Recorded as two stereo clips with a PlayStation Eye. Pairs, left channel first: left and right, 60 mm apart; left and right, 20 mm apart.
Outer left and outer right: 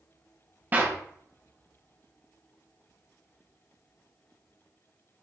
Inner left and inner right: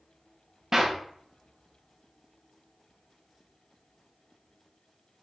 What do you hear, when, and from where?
0.7 s a clap: 30° right (ahead or behind), 1.0 m